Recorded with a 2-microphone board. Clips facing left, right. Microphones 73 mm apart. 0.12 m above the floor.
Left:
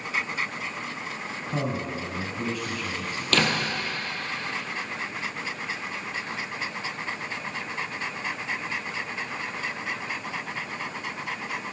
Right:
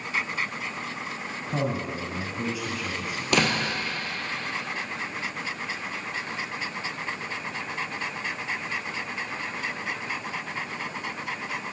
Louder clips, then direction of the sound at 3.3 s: Right 1 dB; 15° right (ahead or behind).